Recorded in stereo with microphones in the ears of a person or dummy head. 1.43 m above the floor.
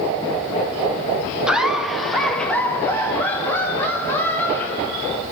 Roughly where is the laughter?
Centre.